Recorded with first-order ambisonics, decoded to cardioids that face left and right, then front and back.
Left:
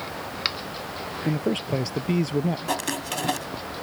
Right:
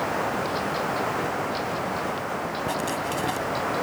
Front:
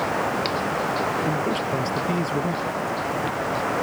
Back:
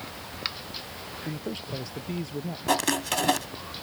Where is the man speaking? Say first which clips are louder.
Even, front 12 dB; 70° left.